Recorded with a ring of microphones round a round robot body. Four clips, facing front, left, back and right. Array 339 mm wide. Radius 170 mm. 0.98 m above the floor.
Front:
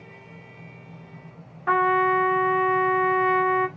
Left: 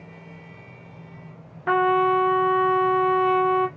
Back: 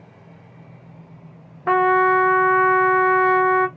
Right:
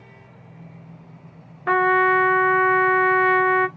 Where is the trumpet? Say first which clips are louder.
Right 1 dB, back 4 dB; 165° right, 0.6 m.